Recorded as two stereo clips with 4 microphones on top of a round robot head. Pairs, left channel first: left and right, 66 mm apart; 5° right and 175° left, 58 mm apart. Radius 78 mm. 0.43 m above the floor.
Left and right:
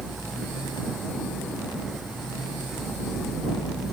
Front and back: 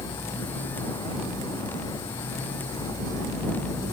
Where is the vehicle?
5° right.